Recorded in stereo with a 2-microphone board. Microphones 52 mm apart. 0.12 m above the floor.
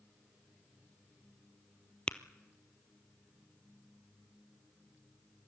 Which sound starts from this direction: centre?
Tapping, at 2.1 s.